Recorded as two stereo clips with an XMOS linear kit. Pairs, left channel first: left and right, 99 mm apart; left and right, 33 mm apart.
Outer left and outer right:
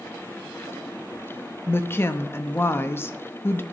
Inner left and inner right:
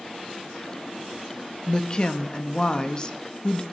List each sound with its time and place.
1.7 s a woman speaking: 20° left (ahead or behind), 0.6 m